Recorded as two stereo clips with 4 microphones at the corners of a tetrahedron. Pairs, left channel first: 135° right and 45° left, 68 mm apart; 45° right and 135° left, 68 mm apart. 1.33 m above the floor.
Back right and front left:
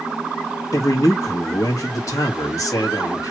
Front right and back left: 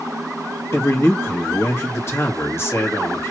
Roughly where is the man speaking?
Right.